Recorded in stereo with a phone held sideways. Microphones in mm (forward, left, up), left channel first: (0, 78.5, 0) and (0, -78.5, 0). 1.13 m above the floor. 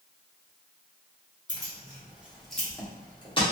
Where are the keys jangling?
25° right (ahead or behind), 1.2 m; by 3.4 s 30° left (ahead or behind), 1.0 m.